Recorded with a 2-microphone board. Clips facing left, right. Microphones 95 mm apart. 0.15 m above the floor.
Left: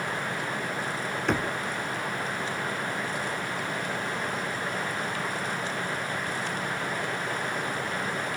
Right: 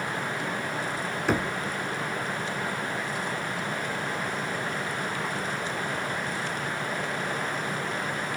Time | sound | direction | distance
1.3 | knocking | centre (ahead or behind) | 0.8 m